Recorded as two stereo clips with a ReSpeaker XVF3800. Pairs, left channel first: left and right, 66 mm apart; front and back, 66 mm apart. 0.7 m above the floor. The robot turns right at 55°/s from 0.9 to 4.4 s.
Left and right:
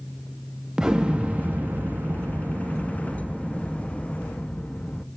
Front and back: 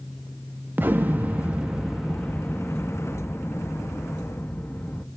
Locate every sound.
0.8 s an explosion: 160° right, 0.8 m; by 5.0 s 30° left, 0.8 m